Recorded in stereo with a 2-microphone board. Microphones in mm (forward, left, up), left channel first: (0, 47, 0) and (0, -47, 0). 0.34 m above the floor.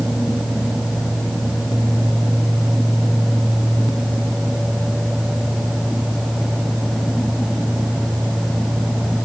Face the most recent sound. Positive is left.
No sound to turn to.